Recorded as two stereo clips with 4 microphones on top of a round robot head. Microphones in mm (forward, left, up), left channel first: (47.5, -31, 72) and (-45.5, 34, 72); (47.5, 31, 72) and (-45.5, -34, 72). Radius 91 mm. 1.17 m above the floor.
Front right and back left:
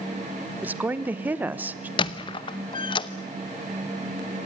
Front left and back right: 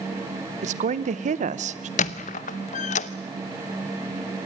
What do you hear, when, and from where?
0.6 s a woman speaking: 140° right, 0.9 m
2.0 s a squeak: 15° left, 0.8 m